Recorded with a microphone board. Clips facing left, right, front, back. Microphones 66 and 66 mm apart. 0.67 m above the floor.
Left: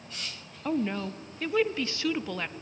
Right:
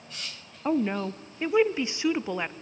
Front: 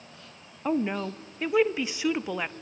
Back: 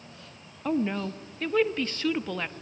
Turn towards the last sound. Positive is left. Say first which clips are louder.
# right 3 dB, even
turn(degrees=-55)